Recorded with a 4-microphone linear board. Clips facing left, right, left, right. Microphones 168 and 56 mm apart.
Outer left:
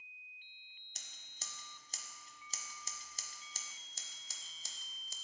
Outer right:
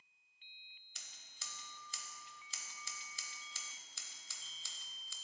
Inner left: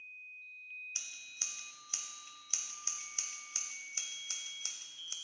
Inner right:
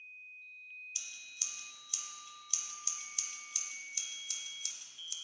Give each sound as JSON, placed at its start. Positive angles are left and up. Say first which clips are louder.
{"t": 0.9, "sound": "scissors", "louder": "outer left 3 dB, inner left 1 dB", "side_deg": 40, "distance_m": 0.7}